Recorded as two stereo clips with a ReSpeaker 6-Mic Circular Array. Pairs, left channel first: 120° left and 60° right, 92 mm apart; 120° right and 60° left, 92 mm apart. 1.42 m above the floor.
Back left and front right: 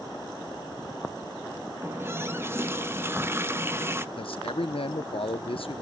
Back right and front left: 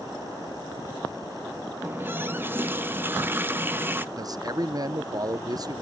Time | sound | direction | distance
1.8 | a running tap | straight ahead | 0.7 m
4.2 | a man speaking | 105° left | 0.8 m